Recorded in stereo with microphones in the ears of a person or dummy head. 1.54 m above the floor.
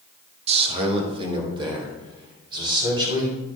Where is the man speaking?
35° right (ahead or behind), 1.5 m; by 3.3 s 20° right (ahead or behind), 4.5 m.